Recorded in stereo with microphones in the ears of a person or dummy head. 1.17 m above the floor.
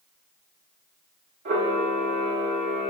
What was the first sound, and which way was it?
A camera shutter, 60° right (ahead or behind).